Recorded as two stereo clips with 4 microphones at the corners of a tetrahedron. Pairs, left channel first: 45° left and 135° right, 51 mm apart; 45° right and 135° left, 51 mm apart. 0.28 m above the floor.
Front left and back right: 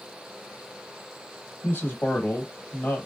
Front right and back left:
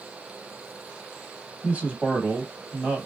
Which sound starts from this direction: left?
A man speaking, at 1.6 s.